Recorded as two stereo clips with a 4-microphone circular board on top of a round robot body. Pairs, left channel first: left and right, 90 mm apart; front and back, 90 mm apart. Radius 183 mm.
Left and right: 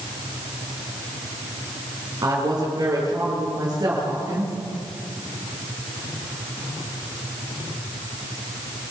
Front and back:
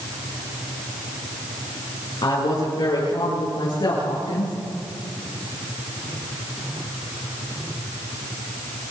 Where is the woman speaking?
35° right, 7 m.